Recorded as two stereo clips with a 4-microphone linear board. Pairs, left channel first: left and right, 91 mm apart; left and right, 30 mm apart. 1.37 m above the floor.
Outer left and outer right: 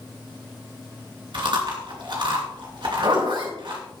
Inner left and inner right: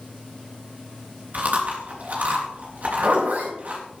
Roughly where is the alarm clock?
No alarm clock in this recording.